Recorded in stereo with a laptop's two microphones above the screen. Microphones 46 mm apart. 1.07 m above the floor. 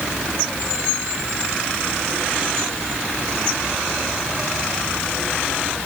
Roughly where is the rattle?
I don't hear a rattle.